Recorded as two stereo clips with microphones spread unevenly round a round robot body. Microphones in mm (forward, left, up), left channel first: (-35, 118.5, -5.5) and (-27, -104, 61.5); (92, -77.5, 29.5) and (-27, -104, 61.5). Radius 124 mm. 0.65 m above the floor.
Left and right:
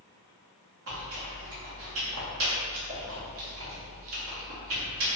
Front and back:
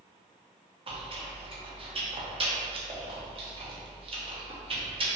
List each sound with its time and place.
0.9 s chewing: 115° right, 0.8 m